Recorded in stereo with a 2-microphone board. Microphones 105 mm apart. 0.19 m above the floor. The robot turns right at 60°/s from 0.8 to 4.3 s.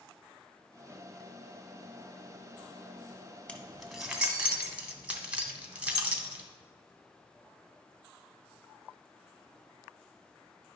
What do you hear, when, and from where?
3.5 s keys jangling: 10° left (ahead or behind), 1.0 m; by 6.5 s 10° right (ahead or behind), 1.0 m